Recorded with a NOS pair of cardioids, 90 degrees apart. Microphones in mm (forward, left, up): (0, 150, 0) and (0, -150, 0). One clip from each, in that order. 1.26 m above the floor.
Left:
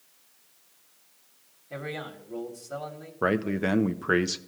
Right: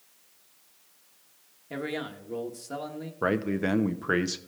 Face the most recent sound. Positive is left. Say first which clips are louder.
# left 1 dB
turn(degrees=10)